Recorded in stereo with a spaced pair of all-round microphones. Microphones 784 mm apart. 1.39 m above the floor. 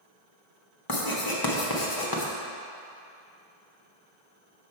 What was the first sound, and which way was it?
Writing, 30° left (ahead or behind).